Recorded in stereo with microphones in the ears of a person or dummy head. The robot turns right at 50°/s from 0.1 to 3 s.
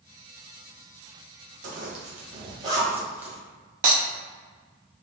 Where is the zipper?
80° right, 1.8 m; by 3.4 s 10° right (ahead or behind), 1.8 m.